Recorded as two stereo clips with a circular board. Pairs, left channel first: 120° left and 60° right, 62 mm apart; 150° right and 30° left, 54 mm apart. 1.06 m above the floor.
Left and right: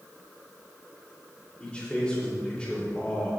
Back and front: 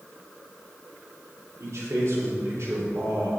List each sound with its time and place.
1.6 s a man speaking: 50° left, 3 m